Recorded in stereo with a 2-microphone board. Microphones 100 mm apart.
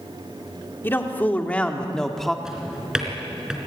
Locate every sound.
0.8 s a man speaking: 20° left (ahead or behind), 2.5 m; by 2.4 s centre (ahead or behind), 1.8 m
2.5 s a drawer: 5° right (ahead or behind), 3.5 m